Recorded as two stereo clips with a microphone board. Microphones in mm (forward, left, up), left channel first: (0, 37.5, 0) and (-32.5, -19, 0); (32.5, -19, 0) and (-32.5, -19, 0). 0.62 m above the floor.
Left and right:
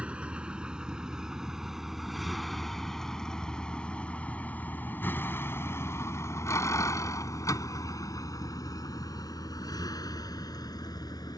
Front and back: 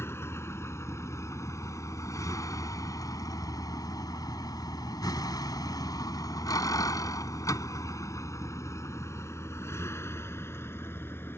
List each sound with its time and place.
0.0 s a vehicle: 50° right; by 11.4 s 55° left